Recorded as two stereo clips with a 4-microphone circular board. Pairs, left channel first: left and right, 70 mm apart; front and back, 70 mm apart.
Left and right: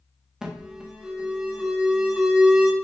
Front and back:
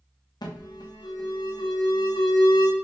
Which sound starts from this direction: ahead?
An alarm, at 0.4 s.